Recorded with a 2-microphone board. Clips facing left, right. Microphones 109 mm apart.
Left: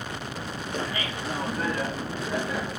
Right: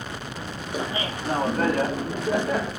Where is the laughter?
10° right (ahead or behind), 0.6 m; by 2.7 s 60° right (ahead or behind), 1.7 m.